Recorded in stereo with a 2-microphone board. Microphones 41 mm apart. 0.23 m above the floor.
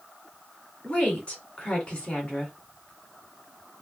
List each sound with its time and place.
0.8 s a woman speaking: 25° left (ahead or behind), 2.5 m